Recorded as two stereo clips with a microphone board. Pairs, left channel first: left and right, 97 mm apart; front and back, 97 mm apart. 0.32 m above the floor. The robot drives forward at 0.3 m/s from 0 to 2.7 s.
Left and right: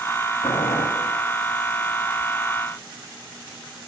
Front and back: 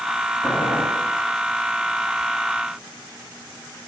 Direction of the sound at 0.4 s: 75° left.